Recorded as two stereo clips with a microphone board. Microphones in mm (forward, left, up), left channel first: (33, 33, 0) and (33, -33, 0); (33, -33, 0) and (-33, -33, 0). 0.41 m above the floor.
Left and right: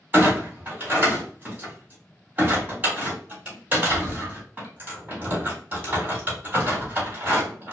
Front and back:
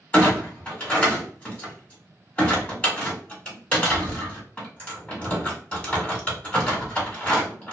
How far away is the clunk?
About 1.4 m.